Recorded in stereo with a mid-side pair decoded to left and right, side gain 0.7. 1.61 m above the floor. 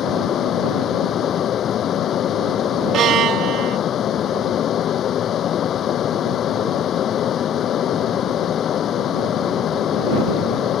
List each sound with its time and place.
0.0 s a fan: 40° left
2.9 s a violin: 50° right